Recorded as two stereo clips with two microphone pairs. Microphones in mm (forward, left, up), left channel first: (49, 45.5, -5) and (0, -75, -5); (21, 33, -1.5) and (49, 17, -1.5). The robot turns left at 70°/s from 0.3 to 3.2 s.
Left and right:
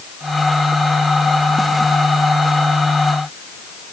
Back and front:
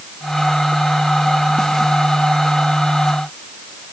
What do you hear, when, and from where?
Only background noise.